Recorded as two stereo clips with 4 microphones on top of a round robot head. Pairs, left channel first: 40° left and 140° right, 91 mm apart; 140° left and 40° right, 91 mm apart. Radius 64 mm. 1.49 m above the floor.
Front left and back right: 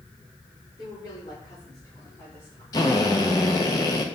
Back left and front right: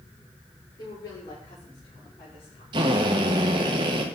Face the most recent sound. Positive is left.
turn(degrees=-5)